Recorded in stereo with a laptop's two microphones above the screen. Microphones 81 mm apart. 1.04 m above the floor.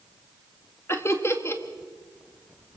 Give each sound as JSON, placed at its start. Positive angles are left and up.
{"t": 0.9, "sound": "laughter", "side_deg": 35, "distance_m": 2.0}